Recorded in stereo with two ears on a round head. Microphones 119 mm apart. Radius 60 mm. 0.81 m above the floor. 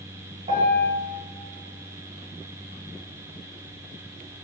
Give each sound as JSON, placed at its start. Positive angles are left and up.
{"t": 0.5, "sound": "a piano", "side_deg": -30, "distance_m": 1.2}